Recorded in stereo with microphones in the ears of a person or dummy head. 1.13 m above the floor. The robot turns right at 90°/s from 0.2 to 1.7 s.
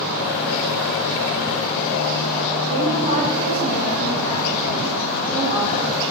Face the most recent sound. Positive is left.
turn(degrees=-45)  # may be behind; listen again after turning